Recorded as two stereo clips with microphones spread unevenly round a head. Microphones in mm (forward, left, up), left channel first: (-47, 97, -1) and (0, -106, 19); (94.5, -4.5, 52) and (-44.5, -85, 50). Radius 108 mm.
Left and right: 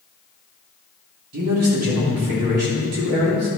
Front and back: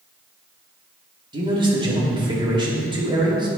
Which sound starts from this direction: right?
A man speaking, at 1.3 s.